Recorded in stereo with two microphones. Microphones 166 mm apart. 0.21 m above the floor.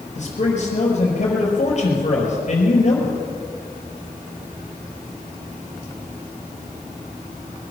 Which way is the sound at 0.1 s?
50° left (ahead or behind).